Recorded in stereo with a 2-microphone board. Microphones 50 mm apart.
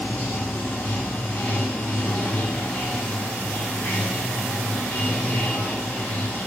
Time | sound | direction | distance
0.0 | running water | 30° left (ahead or behind) | 1.5 m